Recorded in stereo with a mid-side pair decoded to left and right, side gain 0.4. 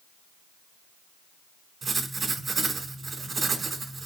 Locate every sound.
1.8 s writing: 50° right, 1.3 m